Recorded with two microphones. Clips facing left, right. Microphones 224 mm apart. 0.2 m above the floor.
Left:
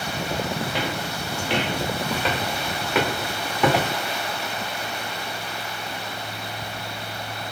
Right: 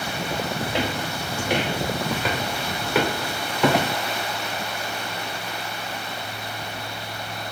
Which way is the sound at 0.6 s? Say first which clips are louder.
Right 2 dB; 25° right (ahead or behind).